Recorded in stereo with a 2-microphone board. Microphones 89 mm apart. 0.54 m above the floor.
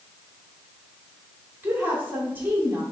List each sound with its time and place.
1.6 s a woman speaking: 20° right (ahead or behind), 1.6 m